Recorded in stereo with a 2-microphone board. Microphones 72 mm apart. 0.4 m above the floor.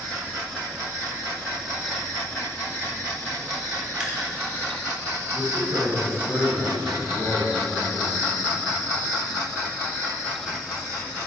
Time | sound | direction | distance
4.0 | dripping | 15° right (ahead or behind) | 1.8 m
5.3 | a man speaking | 65° right (ahead or behind) | 3 m